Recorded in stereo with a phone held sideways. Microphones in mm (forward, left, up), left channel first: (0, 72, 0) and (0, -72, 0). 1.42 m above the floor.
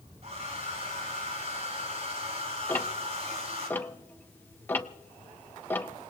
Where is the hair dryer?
50° right (ahead or behind), 4.5 m.